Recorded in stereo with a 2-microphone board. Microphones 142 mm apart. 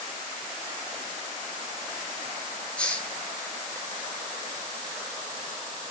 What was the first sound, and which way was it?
A hiss, 10° left (ahead or behind).